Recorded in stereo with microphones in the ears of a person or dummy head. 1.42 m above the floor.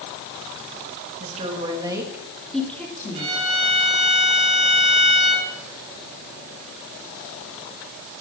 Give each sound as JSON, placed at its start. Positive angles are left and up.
{"t": 1.2, "sound": "a woman speaking", "side_deg": -45, "distance_m": 2.5}
{"t": 3.1, "sound": "a violin", "side_deg": -35, "distance_m": 5.0}